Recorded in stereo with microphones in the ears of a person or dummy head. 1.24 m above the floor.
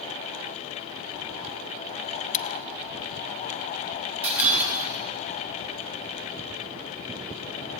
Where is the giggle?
I don't hear a giggle.